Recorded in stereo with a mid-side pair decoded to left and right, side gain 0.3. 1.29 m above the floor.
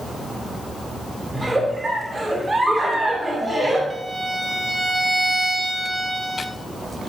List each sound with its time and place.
1.3 s a giggle: 50° right, 8.5 m
3.9 s a violin: 30° right, 4.5 m